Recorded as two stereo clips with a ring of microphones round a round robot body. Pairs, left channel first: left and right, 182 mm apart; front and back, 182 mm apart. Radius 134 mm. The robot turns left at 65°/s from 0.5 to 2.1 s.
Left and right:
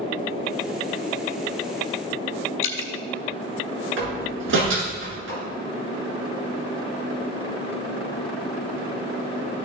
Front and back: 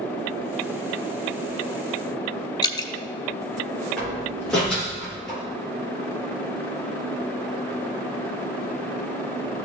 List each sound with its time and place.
2.6 s dripping: 70° left, 1.2 m
4.0 s a door slam: 90° right, 4 m